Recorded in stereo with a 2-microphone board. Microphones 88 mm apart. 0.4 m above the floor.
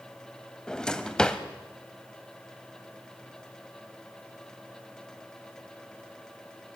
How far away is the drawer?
About 1.1 m.